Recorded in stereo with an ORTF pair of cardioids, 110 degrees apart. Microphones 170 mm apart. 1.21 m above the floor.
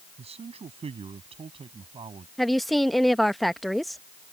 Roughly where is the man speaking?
Ahead right.